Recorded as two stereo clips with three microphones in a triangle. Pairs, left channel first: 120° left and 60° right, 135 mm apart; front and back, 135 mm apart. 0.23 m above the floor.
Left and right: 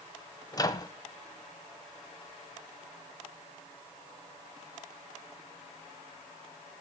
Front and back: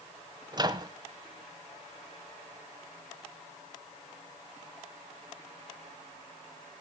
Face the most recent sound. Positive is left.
turn(degrees=155)